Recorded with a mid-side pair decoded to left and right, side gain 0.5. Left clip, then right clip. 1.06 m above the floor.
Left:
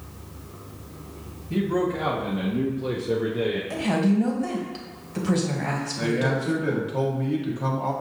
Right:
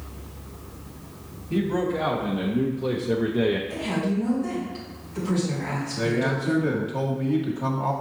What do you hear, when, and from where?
1.5 s a man speaking: 10° left, 1.5 m; by 3.6 s 40° right, 0.6 m
3.7 s a woman speaking: 50° left, 1.7 m
6.0 s a man speaking: straight ahead, 1.5 m